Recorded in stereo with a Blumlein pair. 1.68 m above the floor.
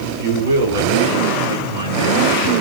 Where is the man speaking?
55° right, 4.5 m; by 2.5 s 75° right, 4 m.